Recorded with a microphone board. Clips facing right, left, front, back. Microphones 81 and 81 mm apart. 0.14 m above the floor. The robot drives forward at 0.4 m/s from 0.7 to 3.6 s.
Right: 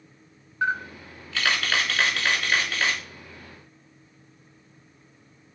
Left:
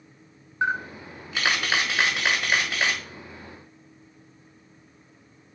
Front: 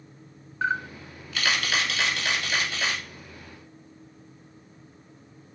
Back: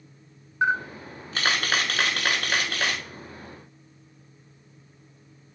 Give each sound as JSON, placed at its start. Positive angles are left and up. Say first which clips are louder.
{"t": 0.6, "sound": "a camera shutter", "louder": "even, back 3 dB", "azimuth_deg": 130, "distance_m": 0.6}